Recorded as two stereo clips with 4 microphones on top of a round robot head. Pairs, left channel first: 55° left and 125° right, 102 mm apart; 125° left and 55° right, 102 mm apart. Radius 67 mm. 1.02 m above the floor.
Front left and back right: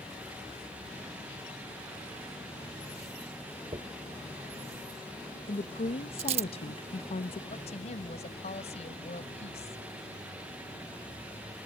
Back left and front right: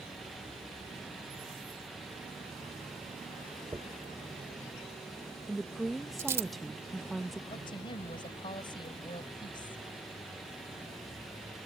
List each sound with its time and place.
3.7 s a dropped coin: 115° right
5.5 s a woman speaking: 40° left
7.5 s a woman speaking: 80° left